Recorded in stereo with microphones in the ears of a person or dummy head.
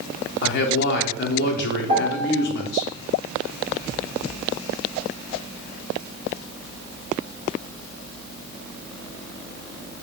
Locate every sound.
0.4 s a man speaking: 55° left (ahead or behind), 0.6 m
1.9 s a piano: 45° right (ahead or behind), 1.3 m